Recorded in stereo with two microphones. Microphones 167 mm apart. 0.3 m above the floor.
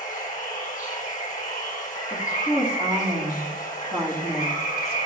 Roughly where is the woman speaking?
Left.